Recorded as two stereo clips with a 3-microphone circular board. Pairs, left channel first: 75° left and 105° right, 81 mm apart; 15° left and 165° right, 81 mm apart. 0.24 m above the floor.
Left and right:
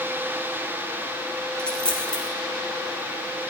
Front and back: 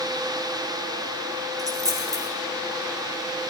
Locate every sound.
1.6 s a dropped coin: 150° left, 1.9 m